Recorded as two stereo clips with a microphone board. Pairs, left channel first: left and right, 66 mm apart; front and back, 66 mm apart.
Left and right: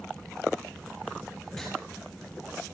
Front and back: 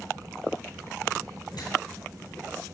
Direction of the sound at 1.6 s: 5° left.